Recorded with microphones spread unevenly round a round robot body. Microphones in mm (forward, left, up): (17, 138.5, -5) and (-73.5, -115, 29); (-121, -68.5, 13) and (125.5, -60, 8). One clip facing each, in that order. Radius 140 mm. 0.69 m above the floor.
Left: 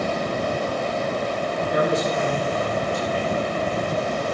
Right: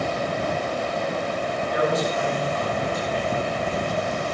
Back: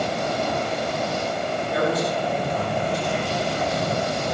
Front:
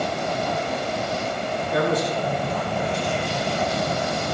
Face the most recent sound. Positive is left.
turn(degrees=40)